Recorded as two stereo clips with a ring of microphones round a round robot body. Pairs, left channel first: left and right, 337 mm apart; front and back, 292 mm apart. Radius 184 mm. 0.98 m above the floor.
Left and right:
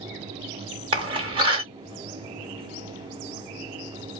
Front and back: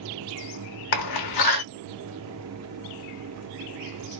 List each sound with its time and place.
0.9 s a door slam: 15° right, 0.6 m